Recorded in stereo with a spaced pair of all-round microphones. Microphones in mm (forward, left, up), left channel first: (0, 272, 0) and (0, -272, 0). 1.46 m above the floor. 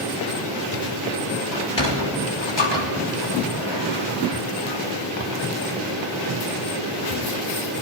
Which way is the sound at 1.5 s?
50° left (ahead or behind).